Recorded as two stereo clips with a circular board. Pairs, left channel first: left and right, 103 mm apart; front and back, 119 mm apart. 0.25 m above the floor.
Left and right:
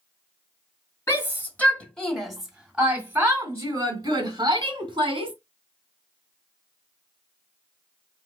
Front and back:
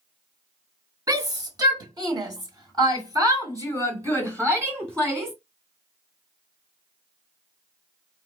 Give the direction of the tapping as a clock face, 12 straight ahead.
I don't hear tapping.